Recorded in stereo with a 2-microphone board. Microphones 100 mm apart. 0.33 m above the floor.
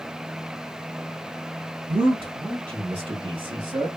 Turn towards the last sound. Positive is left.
turn(degrees=-40)  # may be behind; listen again after turning